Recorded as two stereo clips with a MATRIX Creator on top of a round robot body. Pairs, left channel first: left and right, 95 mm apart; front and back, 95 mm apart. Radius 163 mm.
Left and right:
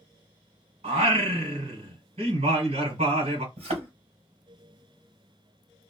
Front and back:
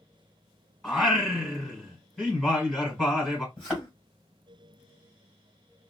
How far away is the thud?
About 1.5 m.